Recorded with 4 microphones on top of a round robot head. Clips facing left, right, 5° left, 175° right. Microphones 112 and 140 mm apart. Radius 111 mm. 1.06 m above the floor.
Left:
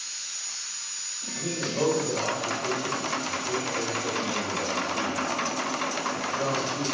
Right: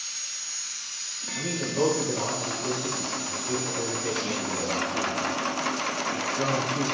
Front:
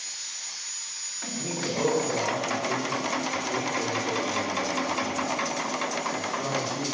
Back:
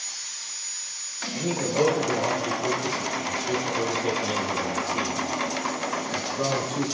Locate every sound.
1.3 s a man speaking: 170° left, 4 m